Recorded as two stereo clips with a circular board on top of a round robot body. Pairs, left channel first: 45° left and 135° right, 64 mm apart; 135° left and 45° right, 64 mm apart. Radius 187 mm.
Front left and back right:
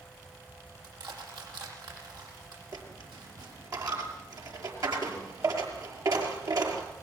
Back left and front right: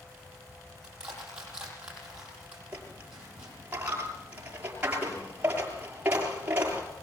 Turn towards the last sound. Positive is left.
turn(degrees=-110)